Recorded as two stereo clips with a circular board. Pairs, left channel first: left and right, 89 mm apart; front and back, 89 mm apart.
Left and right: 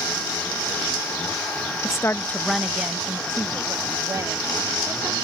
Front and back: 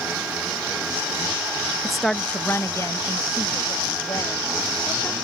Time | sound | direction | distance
1.8 | a woman speaking | 95° left | ?